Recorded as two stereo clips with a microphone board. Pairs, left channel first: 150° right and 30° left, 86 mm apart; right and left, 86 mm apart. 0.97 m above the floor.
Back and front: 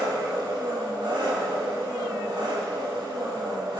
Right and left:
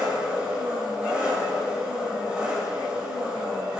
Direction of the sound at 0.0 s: 10° left.